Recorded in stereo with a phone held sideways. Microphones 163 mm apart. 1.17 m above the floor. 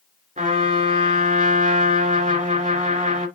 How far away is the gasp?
No gasp in this recording.